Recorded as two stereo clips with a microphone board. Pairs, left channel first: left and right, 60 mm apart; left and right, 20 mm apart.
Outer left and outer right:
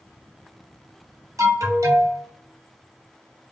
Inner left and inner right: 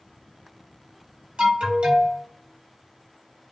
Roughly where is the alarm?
Right.